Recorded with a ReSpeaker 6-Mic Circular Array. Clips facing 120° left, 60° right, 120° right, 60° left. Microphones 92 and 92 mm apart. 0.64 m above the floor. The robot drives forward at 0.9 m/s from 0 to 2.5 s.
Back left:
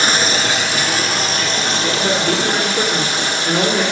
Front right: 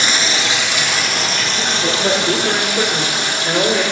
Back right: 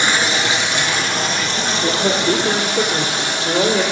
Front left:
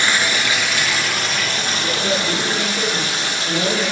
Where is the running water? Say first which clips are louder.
Back left 2 dB, back right 2 dB; 170° left, 1.7 m; by 3.9 s 175° left, 4 m.